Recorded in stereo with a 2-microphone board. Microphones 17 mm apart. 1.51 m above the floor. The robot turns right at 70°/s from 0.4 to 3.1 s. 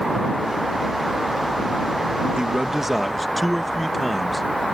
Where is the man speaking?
55° right; by 4.8 s 5° right.